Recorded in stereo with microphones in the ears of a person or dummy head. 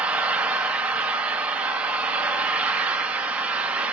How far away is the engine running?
About 0.8 m.